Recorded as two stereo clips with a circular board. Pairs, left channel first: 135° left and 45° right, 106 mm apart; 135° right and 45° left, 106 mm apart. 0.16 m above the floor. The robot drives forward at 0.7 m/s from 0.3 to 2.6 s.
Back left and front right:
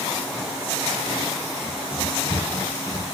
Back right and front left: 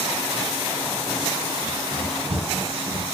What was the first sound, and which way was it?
Running footsteps, 70° left.